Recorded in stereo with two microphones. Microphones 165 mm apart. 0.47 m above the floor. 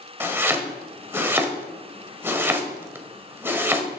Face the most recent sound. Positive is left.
turn(degrees=-15)  # may be behind; listen again after turning